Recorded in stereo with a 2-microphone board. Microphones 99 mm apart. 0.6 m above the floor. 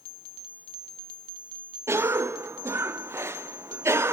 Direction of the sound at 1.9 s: 25° right (ahead or behind).